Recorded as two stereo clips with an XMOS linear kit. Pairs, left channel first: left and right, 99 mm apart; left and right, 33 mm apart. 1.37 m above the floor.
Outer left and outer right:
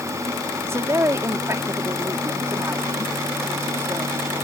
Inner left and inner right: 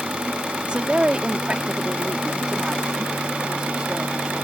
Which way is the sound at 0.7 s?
30° right (ahead or behind).